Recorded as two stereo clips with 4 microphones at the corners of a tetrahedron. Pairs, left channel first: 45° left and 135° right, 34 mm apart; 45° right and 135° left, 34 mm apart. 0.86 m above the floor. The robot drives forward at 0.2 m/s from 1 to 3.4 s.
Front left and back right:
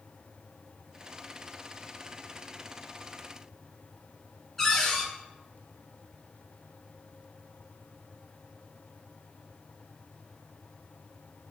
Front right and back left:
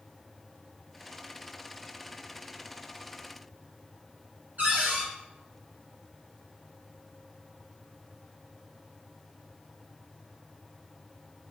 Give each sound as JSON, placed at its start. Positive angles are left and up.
{"t": 4.6, "sound": "a cupboard door", "azimuth_deg": 130, "distance_m": 1.5}